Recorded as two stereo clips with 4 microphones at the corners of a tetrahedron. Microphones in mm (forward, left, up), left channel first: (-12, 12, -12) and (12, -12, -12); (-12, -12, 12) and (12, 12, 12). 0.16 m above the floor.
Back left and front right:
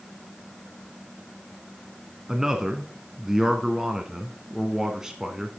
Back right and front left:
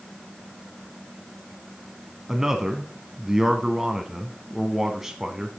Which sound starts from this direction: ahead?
A man speaking, at 2.3 s.